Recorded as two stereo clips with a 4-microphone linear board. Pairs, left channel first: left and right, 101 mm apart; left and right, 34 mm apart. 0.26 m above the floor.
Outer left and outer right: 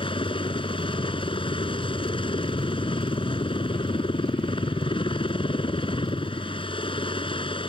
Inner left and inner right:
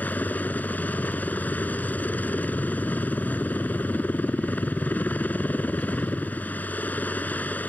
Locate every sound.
0.0 s a helicopter: 60° left (ahead or behind)